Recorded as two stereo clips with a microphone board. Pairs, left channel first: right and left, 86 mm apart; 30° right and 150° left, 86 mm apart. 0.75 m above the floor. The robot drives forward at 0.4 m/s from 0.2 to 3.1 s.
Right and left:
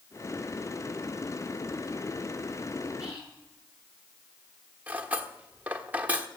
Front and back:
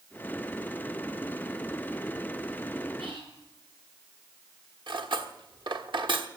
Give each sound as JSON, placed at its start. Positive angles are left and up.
{"t": 3.0, "sound": "whispering", "azimuth_deg": 165, "distance_m": 7.5}
{"t": 4.9, "sound": "cutlery clinking", "azimuth_deg": 165, "distance_m": 1.2}